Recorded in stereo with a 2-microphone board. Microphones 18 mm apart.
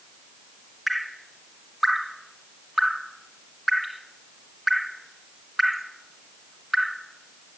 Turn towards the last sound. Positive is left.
turn(degrees=-5)  # may be behind; listen again after turning